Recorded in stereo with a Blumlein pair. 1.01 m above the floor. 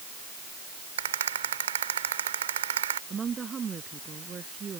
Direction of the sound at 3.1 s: 20° right.